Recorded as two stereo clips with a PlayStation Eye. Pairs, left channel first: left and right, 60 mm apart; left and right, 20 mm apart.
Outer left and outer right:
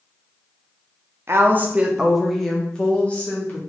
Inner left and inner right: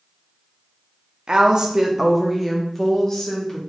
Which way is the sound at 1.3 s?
45° right (ahead or behind).